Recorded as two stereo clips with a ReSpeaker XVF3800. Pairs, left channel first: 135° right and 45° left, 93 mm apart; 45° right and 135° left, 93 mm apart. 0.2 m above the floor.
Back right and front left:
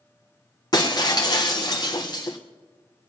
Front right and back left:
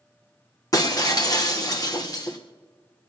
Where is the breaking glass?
95° right, 2.5 m.